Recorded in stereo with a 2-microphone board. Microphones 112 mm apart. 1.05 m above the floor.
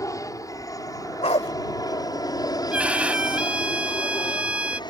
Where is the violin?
10° right (ahead or behind).